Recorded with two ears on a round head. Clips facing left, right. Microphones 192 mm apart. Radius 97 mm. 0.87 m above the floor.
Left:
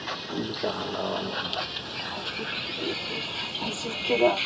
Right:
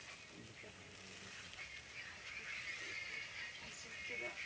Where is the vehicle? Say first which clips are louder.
Left 27 dB; 80° left; by 4.5 s 90° left.